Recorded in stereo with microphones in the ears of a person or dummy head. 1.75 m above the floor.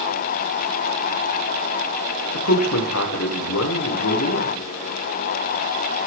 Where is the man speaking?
80° left, 1.8 m.